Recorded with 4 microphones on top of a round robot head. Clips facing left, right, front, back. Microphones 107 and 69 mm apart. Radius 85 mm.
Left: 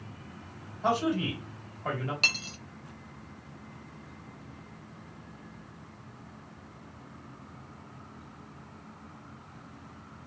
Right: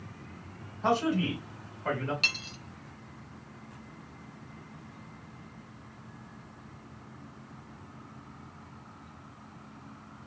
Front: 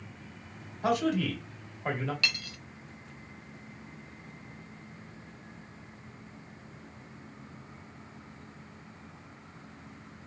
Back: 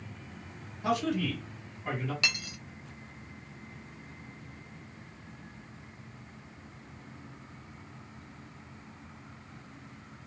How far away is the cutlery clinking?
About 0.6 m.